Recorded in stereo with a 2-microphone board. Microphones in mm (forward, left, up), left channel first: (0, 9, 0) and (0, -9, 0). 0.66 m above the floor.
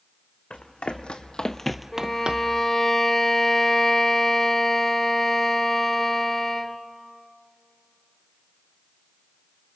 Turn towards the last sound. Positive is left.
turn(degrees=20)  # may be behind; listen again after turning